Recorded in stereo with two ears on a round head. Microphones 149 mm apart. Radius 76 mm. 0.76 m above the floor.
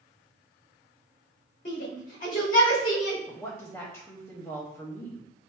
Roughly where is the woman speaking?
Centre.